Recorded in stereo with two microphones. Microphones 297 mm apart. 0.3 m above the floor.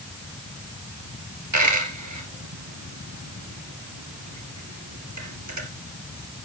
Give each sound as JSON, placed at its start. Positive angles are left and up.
{"t": 1.5, "sound": "a dropped coin", "side_deg": -70, "distance_m": 2.5}